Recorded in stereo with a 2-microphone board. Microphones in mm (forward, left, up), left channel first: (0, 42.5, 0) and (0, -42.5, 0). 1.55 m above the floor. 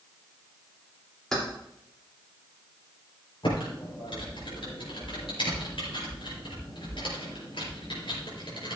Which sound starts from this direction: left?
Typing on a keyboard, at 3.4 s.